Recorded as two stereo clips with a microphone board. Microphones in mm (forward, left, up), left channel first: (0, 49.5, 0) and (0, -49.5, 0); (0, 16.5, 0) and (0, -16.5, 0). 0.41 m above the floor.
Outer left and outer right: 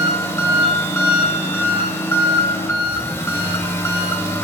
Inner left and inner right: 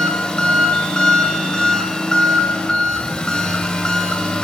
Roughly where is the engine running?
Left.